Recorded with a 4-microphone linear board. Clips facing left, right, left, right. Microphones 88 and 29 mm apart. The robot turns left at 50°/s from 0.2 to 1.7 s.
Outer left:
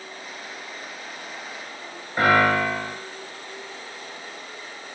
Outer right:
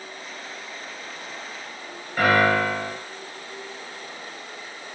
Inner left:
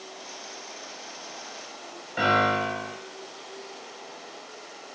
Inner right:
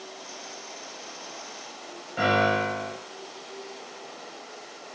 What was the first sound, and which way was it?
A piano, 20° left (ahead or behind).